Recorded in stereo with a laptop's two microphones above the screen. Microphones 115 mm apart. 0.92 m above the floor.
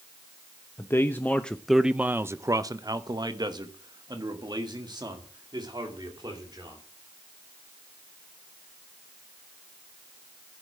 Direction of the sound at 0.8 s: 20° left (ahead or behind).